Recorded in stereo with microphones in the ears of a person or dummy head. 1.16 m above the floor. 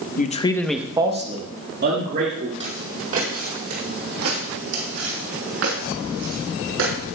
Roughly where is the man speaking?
Left.